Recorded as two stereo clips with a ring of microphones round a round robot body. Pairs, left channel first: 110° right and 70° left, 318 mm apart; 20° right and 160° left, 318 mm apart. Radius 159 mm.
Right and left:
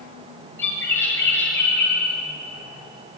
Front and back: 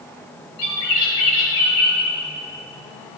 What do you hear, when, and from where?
0.6 s a bird: 30° right, 9.5 m